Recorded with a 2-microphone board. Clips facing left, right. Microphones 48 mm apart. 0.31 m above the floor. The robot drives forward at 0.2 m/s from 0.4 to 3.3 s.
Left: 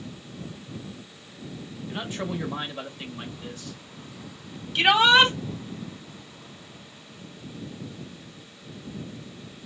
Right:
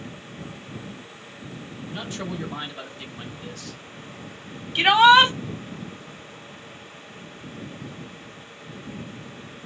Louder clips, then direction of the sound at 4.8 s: Right 4 dB; 10° right (ahead or behind).